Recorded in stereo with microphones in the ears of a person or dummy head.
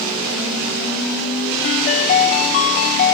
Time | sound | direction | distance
1.6 | a ringtone | 30° left (ahead or behind) | 0.8 m